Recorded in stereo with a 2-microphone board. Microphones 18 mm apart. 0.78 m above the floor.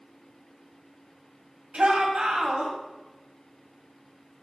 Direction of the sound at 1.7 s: 65° right (ahead or behind).